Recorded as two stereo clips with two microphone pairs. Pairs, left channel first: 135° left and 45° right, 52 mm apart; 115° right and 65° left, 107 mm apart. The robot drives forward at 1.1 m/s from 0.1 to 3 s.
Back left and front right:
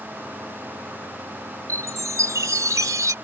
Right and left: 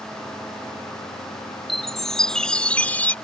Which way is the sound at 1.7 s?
25° right.